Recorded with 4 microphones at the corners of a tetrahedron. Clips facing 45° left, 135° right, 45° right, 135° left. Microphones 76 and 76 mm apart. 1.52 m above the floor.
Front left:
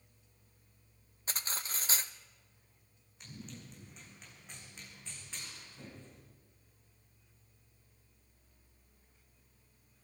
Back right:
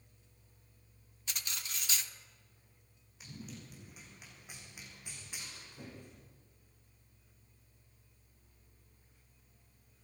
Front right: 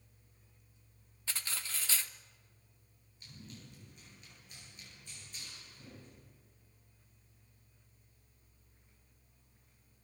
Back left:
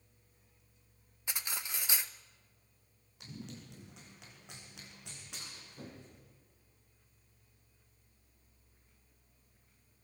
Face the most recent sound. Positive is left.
turn(degrees=150)